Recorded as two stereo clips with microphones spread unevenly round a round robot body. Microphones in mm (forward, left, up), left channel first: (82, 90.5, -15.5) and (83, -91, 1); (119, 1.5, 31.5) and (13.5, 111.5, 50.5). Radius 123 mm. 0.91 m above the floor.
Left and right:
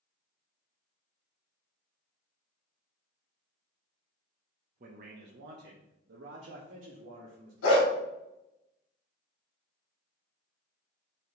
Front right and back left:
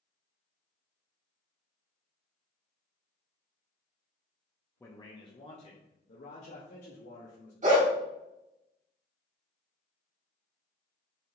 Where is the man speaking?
100° right, 0.7 m; by 7.5 s 70° right, 2.0 m.